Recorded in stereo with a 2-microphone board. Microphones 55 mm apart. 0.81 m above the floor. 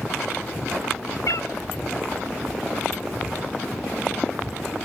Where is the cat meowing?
80° left, 1.0 m.